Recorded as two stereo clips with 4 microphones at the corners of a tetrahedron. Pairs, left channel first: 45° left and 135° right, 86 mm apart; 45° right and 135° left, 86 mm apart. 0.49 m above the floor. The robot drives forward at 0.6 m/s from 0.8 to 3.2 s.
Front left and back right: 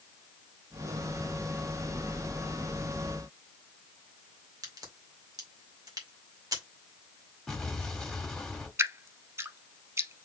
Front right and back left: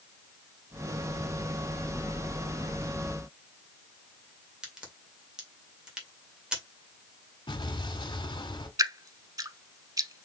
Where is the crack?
150° right, 2.0 m.